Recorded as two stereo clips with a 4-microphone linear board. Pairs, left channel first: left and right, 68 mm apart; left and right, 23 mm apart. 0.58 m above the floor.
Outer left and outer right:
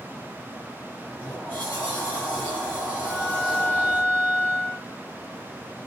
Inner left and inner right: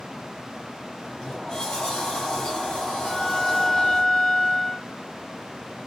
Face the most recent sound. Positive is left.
turn(degrees=30)  # may be behind; listen again after turning